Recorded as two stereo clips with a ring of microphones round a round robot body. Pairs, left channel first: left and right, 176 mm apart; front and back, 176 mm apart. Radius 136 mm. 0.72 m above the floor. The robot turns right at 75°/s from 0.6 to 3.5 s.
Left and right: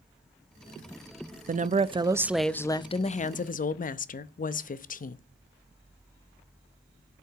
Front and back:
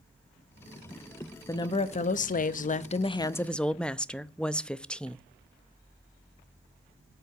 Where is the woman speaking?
70° right, 0.6 m; by 5.2 s 85° left, 0.6 m.